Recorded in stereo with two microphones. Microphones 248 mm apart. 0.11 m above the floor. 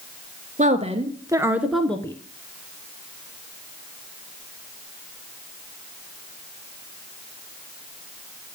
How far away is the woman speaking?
About 1.3 m.